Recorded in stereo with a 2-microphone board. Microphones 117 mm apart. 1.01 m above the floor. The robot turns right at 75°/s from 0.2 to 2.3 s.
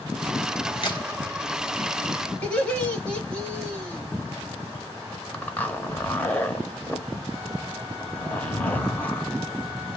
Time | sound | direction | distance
0.8 | a crack | 50° left (ahead or behind) | 1.3 m
2.4 | laughter | 10° left (ahead or behind) | 1.9 m
5.3 | a zipper | 15° left (ahead or behind) | 0.9 m